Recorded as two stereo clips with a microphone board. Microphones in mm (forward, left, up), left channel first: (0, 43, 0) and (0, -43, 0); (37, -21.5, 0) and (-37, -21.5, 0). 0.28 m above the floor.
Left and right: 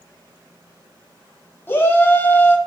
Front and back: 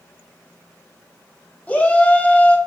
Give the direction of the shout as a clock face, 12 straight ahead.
10 o'clock.